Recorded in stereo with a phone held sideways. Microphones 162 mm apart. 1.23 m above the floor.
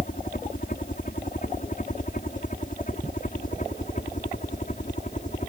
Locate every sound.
0.0 s a helicopter: 55° left (ahead or behind); by 5.5 s 50° left (ahead or behind)